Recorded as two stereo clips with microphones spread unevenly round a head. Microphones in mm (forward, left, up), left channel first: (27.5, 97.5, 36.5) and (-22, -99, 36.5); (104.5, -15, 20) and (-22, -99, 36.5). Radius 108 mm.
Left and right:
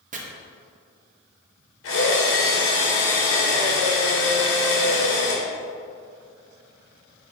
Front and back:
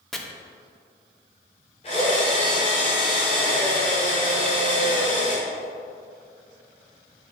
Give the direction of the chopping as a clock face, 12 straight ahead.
2 o'clock.